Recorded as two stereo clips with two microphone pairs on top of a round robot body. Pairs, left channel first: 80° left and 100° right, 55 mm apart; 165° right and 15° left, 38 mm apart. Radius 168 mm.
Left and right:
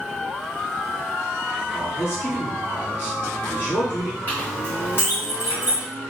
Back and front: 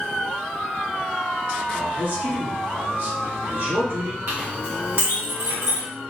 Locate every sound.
1.7 s a man speaking: 40° left, 2 m
4.3 s a clink: 35° left, 1.8 m